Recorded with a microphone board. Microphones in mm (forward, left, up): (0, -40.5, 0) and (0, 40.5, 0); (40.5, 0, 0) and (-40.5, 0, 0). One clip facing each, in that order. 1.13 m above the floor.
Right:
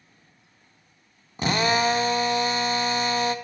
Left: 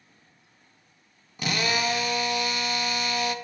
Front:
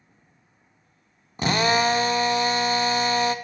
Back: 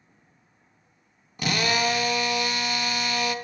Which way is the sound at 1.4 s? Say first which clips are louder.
Right 5 dB, front 4 dB; 45° right.